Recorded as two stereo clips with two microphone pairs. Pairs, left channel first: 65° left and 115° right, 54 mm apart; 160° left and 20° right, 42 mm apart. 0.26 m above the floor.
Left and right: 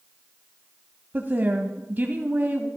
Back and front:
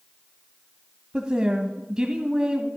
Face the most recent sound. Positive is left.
turn(degrees=-80)